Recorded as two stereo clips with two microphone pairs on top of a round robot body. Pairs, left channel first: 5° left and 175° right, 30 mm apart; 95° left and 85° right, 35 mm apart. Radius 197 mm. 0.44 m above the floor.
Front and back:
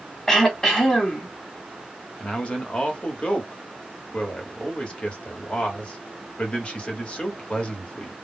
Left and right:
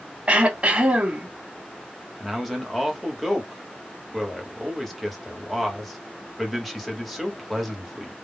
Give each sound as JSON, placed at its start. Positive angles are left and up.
{"t": 0.3, "sound": "throat clearing", "azimuth_deg": -60, "distance_m": 1.5}
{"t": 2.2, "sound": "a man speaking", "azimuth_deg": 0, "distance_m": 1.4}